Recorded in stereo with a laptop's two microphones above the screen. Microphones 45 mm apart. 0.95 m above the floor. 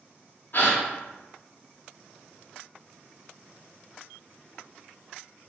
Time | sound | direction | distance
0.5 | a gasp | 50° left (ahead or behind) | 0.5 m